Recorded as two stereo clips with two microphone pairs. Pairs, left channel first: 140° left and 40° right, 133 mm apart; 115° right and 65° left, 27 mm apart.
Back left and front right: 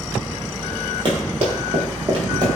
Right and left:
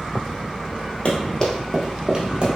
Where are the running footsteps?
80° right, 1.1 m; by 2.5 s 15° left, 1.3 m.